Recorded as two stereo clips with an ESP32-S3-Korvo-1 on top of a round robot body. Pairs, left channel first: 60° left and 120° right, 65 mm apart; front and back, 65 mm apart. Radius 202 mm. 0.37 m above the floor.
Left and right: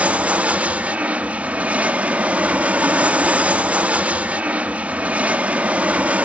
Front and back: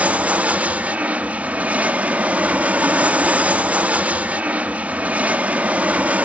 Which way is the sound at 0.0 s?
155° right.